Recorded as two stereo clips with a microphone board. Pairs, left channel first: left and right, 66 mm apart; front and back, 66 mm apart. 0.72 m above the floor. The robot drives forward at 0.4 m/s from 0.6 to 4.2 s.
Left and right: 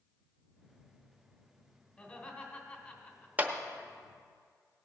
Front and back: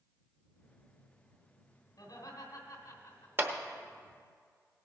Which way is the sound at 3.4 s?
145° right.